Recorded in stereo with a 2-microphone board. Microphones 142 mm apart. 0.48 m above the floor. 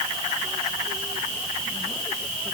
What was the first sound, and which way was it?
Only background noise.